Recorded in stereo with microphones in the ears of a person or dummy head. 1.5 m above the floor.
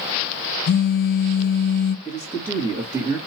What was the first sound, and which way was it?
A phone buzzing, 50° left (ahead or behind).